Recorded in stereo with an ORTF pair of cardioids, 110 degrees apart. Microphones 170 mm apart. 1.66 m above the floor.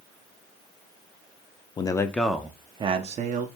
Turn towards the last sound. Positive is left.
turn(degrees=-55)